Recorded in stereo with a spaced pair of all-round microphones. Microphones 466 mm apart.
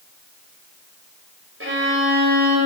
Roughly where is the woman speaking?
No woman speaking in this recording.